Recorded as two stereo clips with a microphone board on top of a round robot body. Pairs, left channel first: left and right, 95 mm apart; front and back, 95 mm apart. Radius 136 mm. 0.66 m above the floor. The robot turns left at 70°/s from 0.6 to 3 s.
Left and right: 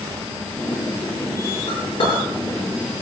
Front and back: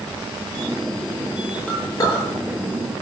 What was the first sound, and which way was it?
A clink, 75° left.